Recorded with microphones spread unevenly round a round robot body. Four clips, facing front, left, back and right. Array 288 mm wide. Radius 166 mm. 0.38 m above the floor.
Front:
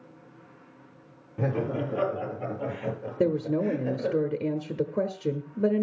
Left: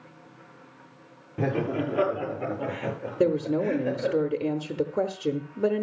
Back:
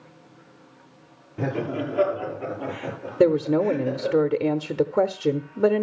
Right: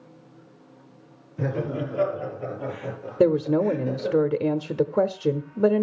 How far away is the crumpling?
No crumpling in this recording.